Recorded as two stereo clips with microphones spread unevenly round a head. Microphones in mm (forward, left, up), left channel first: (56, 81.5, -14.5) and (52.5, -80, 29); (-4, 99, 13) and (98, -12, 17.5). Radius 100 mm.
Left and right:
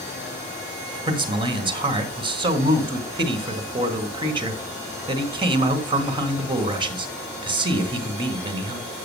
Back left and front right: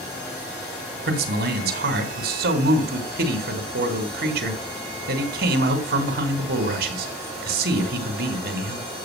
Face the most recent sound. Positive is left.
turn(degrees=-35)